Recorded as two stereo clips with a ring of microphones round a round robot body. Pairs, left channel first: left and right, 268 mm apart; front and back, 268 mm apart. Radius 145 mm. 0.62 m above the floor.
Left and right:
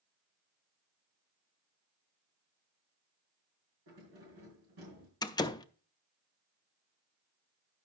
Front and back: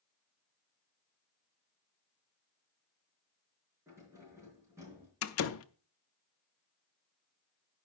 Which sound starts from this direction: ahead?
A door slam, at 5.2 s.